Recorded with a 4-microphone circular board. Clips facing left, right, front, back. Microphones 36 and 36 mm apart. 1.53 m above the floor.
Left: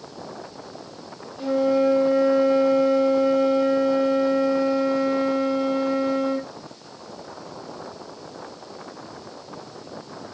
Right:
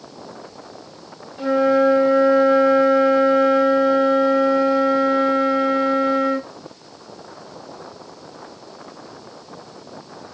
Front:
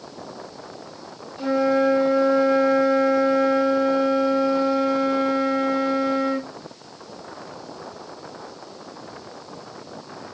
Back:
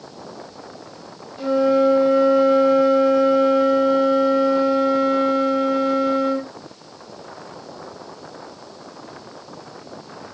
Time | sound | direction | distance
1.4 | a flute | 110° right | 1.9 m